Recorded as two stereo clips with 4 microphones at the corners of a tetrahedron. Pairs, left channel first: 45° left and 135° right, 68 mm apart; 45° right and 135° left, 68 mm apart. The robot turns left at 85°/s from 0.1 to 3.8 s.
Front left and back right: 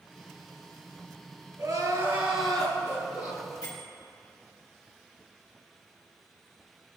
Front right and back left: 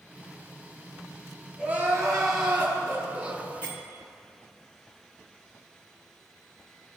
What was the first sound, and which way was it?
Crying, 150° right.